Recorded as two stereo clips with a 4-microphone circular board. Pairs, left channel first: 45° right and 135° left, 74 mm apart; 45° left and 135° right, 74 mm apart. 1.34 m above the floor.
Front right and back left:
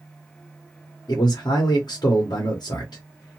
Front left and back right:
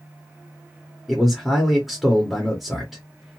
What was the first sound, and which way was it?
A man speaking, 45° right.